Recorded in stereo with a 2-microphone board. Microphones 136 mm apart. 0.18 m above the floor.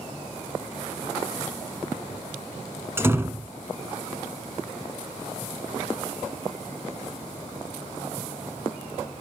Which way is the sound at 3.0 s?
20° right (ahead or behind).